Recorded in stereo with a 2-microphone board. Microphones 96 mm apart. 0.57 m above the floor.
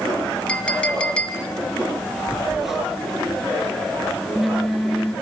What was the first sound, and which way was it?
A clink, 10° left (ahead or behind).